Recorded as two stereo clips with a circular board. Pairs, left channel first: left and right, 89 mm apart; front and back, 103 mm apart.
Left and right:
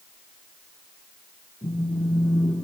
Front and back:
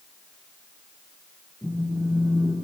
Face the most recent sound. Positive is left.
turn(degrees=100)